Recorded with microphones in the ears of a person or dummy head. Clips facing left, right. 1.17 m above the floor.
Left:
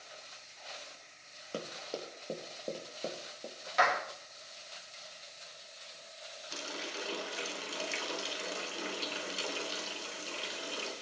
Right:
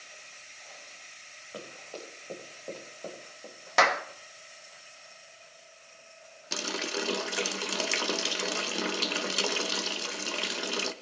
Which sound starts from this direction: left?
Running footsteps, at 1.5 s.